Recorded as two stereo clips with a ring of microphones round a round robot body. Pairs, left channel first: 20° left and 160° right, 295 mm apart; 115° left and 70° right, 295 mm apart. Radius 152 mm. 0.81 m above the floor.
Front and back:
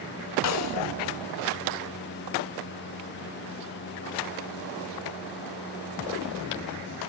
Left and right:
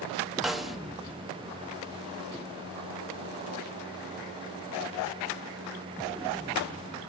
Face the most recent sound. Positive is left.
turn(degrees=20)